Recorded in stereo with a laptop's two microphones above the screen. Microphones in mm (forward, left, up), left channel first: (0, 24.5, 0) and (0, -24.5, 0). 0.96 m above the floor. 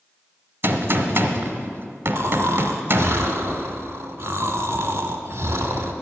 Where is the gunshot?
60° right (ahead or behind), 1.2 m.